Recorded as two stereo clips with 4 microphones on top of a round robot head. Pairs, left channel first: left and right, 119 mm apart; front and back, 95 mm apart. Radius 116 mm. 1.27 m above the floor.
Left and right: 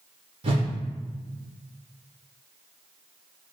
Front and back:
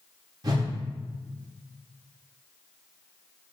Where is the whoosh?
130° right, 1.3 m.